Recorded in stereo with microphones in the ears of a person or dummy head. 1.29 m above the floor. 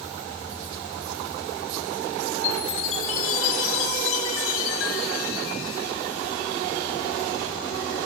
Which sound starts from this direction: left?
A chime, at 2.4 s.